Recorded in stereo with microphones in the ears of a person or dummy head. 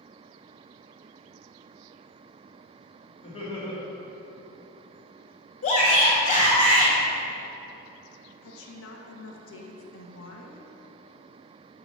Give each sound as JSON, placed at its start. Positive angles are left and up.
{"t": 3.2, "sound": "laughter", "side_deg": 30, "distance_m": 1.9}
{"t": 5.6, "sound": "a shout", "side_deg": 40, "distance_m": 2.0}
{"t": 8.4, "sound": "a woman speaking", "side_deg": 75, "distance_m": 1.2}